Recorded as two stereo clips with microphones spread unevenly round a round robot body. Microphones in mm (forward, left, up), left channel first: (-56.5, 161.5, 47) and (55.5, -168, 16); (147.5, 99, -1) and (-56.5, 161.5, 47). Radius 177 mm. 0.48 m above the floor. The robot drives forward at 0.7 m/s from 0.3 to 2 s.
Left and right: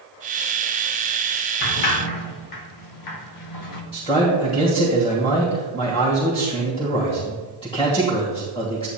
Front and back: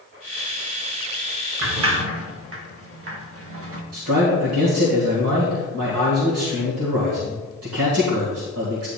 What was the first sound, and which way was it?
A sliding door, 135° left.